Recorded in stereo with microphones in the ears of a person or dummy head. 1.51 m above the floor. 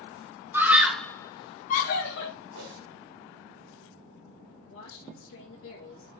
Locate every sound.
0.5 s a scream: 15° right (ahead or behind), 1.4 m; by 2.3 s 65° left (ahead or behind), 1.3 m
2.5 s a whoosh: 75° right (ahead or behind), 3 m
4.7 s a woman speaking: 60° left (ahead or behind), 2.0 m